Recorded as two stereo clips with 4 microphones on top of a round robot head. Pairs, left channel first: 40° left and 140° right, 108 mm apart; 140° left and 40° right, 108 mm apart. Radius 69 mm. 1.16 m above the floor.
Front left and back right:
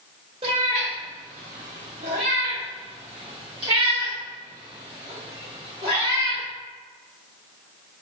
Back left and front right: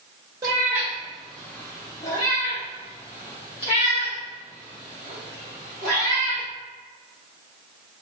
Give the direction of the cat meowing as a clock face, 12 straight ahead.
3 o'clock.